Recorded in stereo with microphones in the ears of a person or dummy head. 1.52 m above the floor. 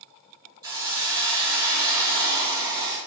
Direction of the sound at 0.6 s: 15° right (ahead or behind).